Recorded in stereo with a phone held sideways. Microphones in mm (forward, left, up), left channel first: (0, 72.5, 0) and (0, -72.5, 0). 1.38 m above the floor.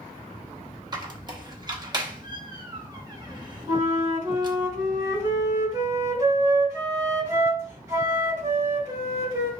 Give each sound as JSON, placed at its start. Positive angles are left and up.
{"t": 0.9, "sound": "a squeak", "side_deg": -30, "distance_m": 0.8}
{"t": 3.7, "sound": "a flute", "side_deg": -20, "distance_m": 2.0}